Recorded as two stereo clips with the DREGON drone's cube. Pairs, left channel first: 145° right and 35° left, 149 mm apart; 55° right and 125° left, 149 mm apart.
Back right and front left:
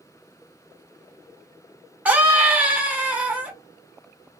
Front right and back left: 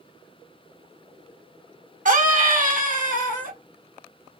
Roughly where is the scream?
Behind left.